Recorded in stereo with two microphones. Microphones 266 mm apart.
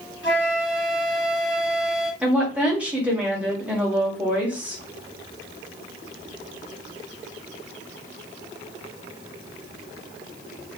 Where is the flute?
50° left (ahead or behind), 1.3 m.